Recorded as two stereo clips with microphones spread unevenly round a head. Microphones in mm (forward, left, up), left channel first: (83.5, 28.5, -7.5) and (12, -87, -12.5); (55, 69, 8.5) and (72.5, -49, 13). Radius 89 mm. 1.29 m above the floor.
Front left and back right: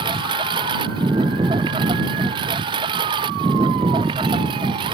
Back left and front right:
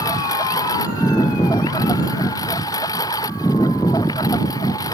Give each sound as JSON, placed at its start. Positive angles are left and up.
{"t": 0.0, "sound": "a lawn mower", "azimuth_deg": 170}